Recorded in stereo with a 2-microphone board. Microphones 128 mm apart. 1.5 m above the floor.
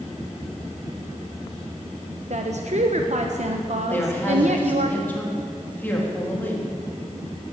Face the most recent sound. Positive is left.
turn(degrees=15)  # may be behind; listen again after turning